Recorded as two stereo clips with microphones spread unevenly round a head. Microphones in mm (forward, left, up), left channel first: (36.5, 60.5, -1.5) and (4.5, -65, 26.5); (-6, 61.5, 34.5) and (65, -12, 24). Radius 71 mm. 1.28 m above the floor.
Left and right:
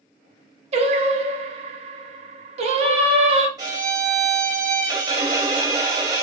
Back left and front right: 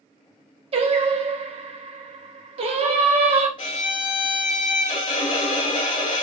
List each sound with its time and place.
0.7 s singing: 60° right, 0.9 m
3.6 s a violin: 170° right, 0.6 m